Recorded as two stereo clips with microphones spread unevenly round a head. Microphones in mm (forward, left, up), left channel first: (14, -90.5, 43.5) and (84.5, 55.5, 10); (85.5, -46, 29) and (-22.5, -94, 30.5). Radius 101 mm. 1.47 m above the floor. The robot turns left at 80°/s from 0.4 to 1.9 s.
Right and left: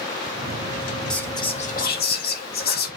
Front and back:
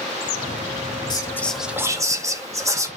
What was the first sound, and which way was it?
Whispering, 30° right.